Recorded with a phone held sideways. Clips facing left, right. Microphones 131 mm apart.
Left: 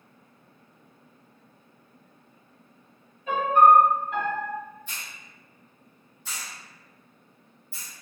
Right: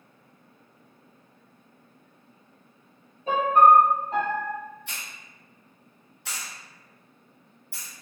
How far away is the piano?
About 0.6 m.